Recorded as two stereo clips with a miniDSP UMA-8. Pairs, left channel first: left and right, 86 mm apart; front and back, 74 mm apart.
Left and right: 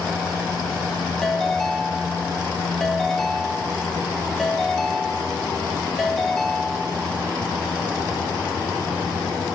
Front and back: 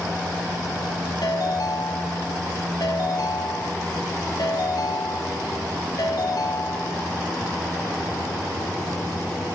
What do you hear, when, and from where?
1.2 s a ringtone: 5° left, 1.5 m